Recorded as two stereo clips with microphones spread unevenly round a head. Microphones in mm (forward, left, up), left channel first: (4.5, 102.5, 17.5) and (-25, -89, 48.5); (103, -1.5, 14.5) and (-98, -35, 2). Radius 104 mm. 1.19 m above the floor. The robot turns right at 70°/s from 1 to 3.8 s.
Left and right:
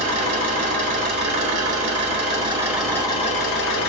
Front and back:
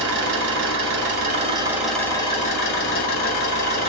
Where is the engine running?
140° right, 1.7 m; by 3.9 s 55° left, 1.7 m.